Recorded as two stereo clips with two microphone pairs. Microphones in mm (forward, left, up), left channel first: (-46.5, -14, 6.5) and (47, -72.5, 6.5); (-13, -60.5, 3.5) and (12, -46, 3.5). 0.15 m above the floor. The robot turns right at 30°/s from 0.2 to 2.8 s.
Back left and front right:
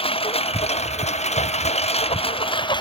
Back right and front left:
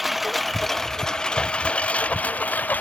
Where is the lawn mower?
115° left; by 2.8 s 165° right.